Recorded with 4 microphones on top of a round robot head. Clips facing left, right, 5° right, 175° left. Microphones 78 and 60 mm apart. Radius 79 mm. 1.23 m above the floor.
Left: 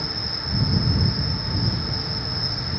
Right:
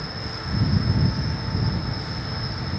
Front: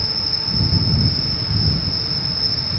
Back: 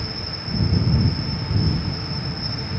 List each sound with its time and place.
0.0 s an insect: 10° left